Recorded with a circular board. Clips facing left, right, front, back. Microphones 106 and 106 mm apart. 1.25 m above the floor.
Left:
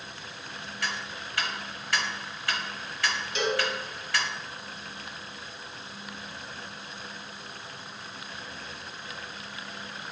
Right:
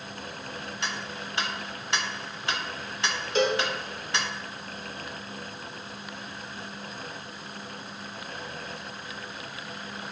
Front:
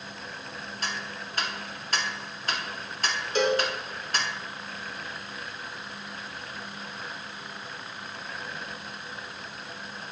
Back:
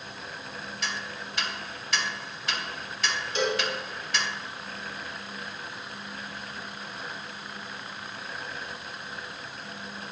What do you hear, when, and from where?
0.8 s ticking: 30° right, 0.9 m
3.4 s a cowbell: 40° right, 1.0 m